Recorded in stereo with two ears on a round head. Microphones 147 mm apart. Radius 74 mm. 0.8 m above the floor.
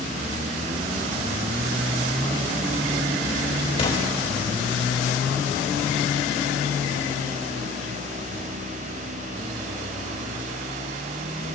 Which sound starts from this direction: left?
An explosion, at 3.8 s.